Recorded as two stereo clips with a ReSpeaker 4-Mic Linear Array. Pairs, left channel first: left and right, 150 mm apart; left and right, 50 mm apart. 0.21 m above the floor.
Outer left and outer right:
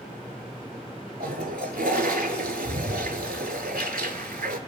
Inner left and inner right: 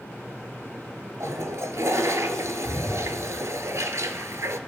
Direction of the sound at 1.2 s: 85° right.